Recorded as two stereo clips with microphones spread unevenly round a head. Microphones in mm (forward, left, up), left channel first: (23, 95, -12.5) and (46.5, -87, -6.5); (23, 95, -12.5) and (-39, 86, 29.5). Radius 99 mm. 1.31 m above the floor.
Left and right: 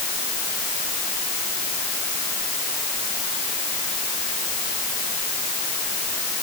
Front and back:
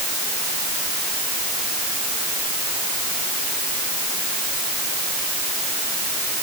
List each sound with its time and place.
Only background noise.